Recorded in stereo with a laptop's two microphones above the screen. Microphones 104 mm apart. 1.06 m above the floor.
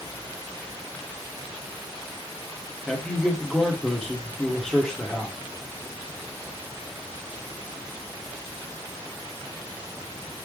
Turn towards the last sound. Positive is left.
turn(degrees=5)  # may be behind; listen again after turning